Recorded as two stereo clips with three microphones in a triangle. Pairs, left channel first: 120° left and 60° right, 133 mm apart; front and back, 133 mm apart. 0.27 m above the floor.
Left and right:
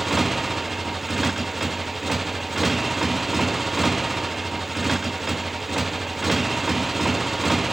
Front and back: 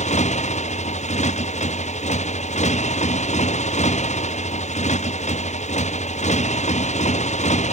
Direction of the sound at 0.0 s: 30° left.